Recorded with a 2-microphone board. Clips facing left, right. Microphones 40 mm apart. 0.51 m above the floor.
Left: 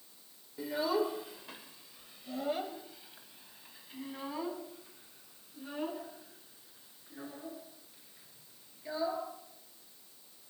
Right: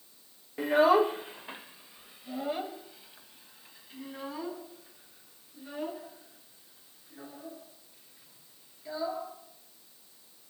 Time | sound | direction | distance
0.6 | a child speaking | 65° right (ahead or behind) | 0.8 m